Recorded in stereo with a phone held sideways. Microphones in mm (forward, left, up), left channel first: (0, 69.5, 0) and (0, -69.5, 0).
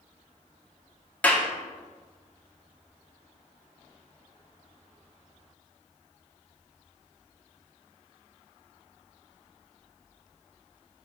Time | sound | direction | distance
1.2 | a clap | 10° left (ahead or behind) | 1.0 m